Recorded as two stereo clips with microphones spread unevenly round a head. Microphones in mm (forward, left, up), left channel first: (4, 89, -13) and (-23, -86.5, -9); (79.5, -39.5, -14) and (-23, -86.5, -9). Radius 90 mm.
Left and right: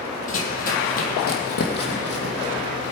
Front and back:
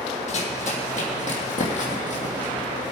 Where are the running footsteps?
35° left, 2.0 m; by 2.9 s 55° left, 3 m.